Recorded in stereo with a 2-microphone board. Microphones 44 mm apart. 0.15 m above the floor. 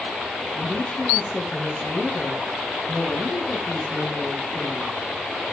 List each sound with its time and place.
0.6 s a woman speaking: 50° left (ahead or behind), 4.5 m